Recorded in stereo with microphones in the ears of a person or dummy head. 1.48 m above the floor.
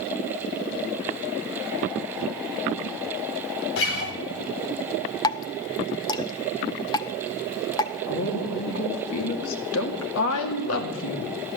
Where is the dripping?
20° left (ahead or behind), 0.8 m.